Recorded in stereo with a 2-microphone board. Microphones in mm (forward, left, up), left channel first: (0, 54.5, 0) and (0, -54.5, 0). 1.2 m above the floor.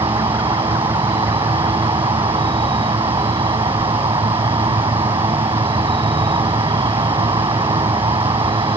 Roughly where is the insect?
Right.